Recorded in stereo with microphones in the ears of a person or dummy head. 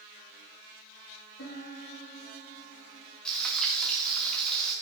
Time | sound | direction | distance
1.4 | a piano | 65° left (ahead or behind) | 3 m
3.2 | frying | 5° left (ahead or behind) | 2.5 m